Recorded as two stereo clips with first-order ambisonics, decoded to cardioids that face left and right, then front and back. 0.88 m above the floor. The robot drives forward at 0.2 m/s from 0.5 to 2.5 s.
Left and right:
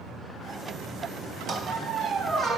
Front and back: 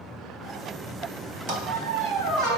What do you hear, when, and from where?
1.5 s a squeak: 160° right, 3 m; by 2.6 s 165° right, 3 m